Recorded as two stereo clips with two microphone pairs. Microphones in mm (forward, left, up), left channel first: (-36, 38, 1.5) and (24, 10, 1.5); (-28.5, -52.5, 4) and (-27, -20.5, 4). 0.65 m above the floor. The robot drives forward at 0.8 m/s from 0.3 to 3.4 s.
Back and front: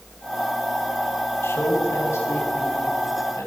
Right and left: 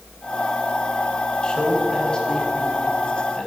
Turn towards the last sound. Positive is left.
turn(degrees=-165)